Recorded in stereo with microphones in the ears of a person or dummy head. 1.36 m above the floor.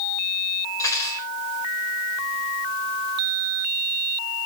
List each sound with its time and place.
0.8 s cutlery clinking: 20° left (ahead or behind), 4 m